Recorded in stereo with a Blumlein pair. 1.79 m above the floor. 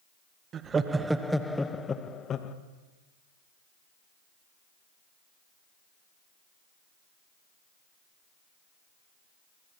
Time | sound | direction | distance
0.5 | laughter | 25° right | 1.8 m